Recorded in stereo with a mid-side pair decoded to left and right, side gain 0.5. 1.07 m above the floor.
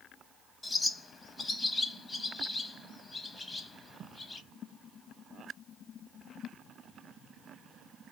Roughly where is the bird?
Ahead left.